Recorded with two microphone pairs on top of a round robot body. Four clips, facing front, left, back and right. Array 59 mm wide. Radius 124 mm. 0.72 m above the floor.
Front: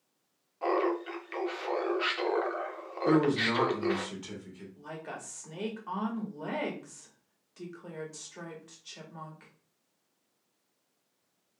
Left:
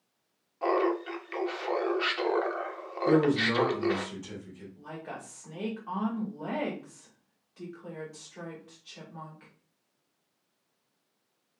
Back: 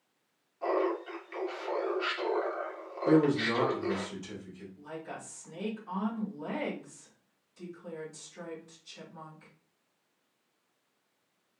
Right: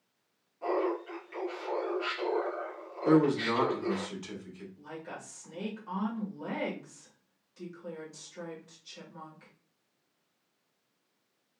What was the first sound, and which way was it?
Laughter, 55° left.